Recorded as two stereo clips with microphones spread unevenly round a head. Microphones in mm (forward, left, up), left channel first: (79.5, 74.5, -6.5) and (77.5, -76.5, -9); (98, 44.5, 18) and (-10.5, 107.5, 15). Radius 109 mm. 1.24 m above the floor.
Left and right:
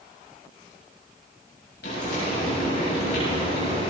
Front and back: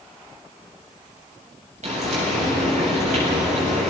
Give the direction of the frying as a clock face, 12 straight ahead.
8 o'clock.